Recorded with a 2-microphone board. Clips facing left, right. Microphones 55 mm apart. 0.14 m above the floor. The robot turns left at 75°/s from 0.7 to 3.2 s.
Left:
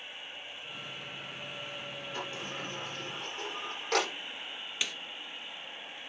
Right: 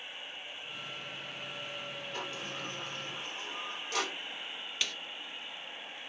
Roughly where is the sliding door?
Centre.